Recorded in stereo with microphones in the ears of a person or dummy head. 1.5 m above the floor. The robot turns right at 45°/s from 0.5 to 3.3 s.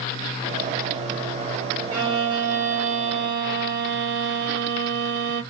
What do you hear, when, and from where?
1.9 s a violin: 110° right, 2.5 m; by 5.4 s 45° right, 2.5 m